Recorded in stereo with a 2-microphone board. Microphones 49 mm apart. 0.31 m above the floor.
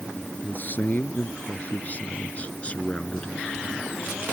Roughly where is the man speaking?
Left.